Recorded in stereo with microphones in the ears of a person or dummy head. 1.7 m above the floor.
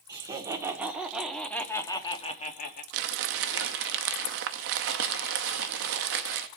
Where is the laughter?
20° right (ahead or behind), 1.6 m; by 2.8 s 55° left (ahead or behind), 1.0 m.